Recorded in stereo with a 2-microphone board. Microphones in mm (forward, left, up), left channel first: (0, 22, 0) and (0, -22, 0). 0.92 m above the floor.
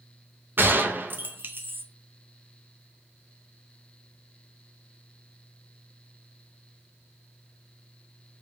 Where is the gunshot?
50° right (ahead or behind), 0.6 m.